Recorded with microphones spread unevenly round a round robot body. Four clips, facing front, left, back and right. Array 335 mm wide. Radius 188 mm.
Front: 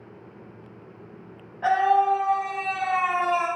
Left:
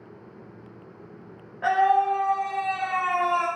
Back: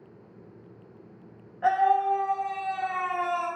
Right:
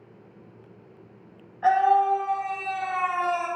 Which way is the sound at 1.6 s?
100° left.